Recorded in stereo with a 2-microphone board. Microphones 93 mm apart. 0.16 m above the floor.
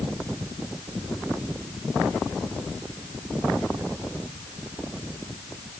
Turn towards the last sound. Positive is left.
No sound to turn to.